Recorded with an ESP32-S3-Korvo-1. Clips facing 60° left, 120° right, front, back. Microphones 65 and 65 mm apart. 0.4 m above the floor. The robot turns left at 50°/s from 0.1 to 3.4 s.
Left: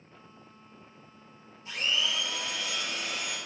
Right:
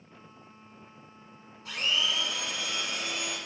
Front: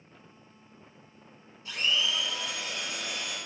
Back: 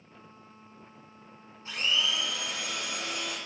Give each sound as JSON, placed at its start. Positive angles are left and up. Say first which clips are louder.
{"t": 1.6, "sound": "a blender", "louder": "right 1 dB, even", "azimuth_deg": -125, "distance_m": 1.4}